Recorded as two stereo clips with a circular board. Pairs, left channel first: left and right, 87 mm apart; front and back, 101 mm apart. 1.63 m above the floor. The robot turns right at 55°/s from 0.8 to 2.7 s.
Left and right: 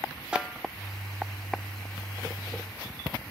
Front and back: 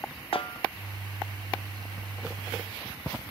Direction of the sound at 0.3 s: 10° right.